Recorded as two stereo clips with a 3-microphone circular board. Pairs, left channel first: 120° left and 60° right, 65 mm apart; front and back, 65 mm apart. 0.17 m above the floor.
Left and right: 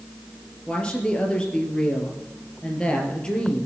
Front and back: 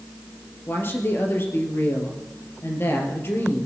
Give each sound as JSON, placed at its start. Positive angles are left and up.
{"t": 0.7, "sound": "a woman speaking", "azimuth_deg": 45, "distance_m": 3.5}